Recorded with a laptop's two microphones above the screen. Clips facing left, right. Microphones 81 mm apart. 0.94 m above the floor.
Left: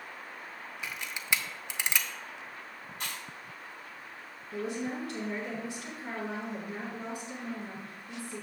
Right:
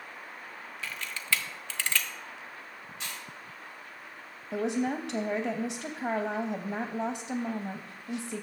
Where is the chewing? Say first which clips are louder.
Left 2 dB; 45° left (ahead or behind), 2 m.